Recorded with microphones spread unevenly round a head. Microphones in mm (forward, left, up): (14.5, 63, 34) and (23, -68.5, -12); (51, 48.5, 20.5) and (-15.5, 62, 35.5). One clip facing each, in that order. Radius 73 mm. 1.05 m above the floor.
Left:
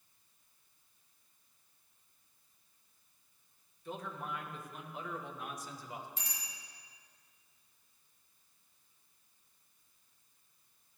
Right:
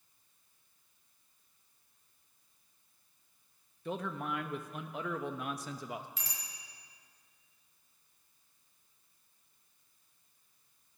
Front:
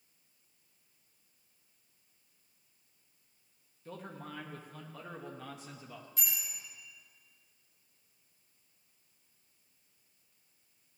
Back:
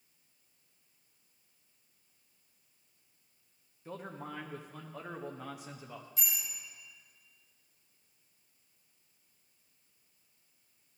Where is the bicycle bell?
75° right, 4 m.